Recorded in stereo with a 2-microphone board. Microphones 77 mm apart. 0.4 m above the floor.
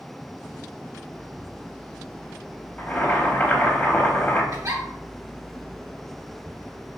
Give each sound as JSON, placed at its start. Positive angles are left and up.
{"t": 2.8, "sound": "boiling", "side_deg": 20, "distance_m": 0.6}
{"t": 4.5, "sound": "a giggle", "side_deg": -65, "distance_m": 1.7}